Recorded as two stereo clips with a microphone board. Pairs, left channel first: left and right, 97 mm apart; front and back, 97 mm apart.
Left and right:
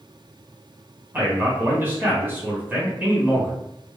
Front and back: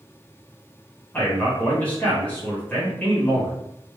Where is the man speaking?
50° right, 1.5 m.